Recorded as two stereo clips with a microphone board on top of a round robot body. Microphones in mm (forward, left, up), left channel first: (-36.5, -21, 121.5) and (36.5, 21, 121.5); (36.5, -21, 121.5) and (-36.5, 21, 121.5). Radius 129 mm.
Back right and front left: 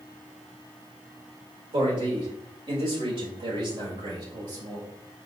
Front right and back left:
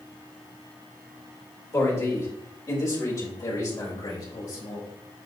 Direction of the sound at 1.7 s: 25° left.